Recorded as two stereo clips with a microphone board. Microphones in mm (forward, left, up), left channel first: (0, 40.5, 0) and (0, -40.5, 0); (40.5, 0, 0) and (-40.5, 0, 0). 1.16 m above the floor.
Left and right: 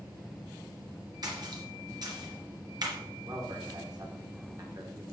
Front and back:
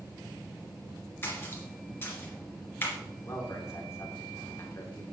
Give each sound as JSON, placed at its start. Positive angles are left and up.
{"t": 1.2, "sound": "a splash", "azimuth_deg": -60, "distance_m": 3.0}
{"t": 3.2, "sound": "a man speaking", "azimuth_deg": -55, "distance_m": 2.5}